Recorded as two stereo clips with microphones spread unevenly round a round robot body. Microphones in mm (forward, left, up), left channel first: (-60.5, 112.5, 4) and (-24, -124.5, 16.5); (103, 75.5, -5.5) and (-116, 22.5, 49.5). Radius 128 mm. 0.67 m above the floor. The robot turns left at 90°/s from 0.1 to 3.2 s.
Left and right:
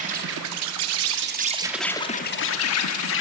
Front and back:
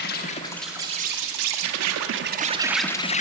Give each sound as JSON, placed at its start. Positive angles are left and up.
{"t": 0.0, "sound": "an insect", "azimuth_deg": -20, "distance_m": 0.8}